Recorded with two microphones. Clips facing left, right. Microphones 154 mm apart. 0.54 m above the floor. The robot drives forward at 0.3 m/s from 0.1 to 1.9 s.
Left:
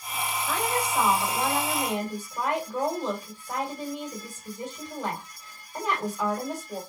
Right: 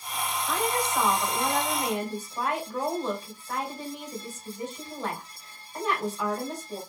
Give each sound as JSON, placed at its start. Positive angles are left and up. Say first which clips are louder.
{"t": 0.5, "sound": "a woman speaking", "louder": "even", "side_deg": 15, "distance_m": 1.9}